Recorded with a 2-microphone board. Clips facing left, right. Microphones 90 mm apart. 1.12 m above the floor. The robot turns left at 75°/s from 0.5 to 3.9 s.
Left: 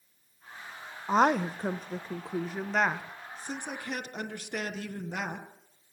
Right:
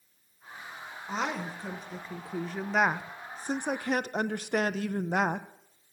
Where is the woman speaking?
115° left, 0.6 m; by 5.5 s 95° right, 0.6 m.